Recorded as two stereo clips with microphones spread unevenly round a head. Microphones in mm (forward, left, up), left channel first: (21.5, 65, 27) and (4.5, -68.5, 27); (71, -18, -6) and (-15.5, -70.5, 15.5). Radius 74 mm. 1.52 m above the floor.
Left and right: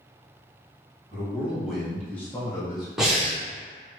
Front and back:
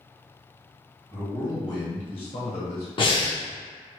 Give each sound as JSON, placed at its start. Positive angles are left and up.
{"t": 1.1, "sound": "a man speaking", "azimuth_deg": -25, "distance_m": 1.5}
{"t": 3.0, "sound": "breathing", "azimuth_deg": -10, "distance_m": 0.9}